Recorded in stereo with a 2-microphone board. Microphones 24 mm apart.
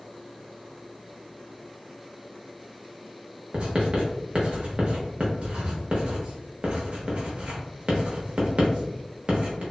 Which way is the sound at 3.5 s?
50° right (ahead or behind).